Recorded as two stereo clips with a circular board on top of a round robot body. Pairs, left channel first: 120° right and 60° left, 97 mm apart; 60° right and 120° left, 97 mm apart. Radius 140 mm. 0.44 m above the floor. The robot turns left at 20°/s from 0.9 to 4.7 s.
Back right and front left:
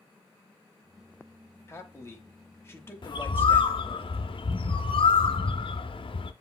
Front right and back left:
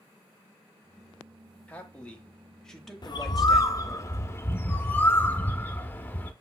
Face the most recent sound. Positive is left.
turn(degrees=-125)